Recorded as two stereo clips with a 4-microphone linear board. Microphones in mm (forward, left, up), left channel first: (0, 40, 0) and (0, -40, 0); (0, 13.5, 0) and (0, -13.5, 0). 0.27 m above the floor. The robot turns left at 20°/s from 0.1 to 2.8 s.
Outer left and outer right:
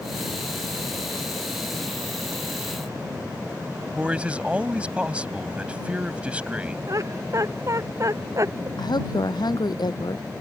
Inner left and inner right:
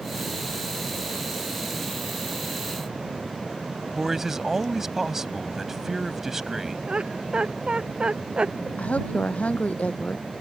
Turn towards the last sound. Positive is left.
turn(degrees=65)  # may be behind; listen again after turning